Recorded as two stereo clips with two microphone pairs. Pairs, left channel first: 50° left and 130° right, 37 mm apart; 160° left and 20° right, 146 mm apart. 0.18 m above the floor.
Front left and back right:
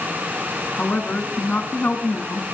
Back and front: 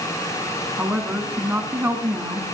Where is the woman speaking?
50° left, 2 m.